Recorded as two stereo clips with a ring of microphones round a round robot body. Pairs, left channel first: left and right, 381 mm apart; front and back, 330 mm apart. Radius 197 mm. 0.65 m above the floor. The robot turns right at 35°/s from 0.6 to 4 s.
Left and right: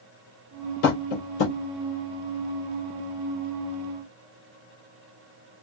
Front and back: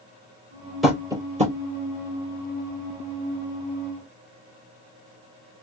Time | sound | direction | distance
0.8 | tapping | 90° left | 3 m